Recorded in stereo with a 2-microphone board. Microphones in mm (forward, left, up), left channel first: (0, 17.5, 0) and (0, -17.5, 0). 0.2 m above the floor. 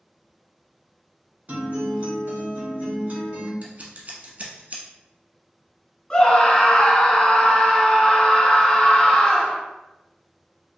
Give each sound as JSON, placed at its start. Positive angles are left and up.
{"t": 1.5, "sound": "a guitar", "side_deg": -50, "distance_m": 1.6}
{"t": 3.6, "sound": "scissors", "side_deg": -50, "distance_m": 1.1}
{"t": 6.1, "sound": "a scream", "side_deg": 25, "distance_m": 1.3}